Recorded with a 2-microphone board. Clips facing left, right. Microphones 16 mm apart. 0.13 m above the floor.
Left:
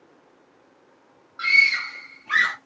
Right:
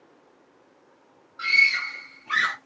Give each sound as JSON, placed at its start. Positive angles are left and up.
{"t": 1.4, "sound": "a scream", "side_deg": 35, "distance_m": 2.5}